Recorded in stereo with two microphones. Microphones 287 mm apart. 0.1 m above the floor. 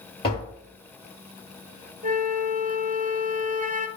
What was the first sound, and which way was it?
Tapping, 15° left (ahead or behind).